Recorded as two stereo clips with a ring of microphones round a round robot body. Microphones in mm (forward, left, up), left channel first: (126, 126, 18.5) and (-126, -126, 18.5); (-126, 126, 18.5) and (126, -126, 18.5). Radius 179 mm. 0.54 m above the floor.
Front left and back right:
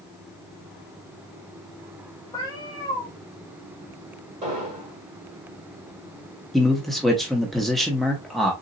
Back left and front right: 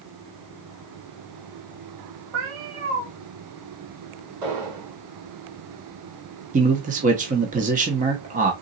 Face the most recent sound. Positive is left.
turn(degrees=-45)